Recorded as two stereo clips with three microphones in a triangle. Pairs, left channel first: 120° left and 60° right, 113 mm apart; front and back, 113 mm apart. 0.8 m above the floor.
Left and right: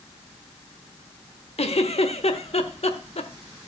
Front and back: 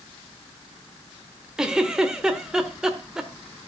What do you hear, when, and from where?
1.6 s a giggle: 95° left, 1.2 m